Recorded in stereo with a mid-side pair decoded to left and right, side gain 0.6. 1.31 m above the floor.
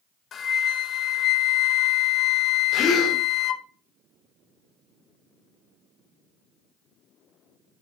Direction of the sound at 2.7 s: 50° left.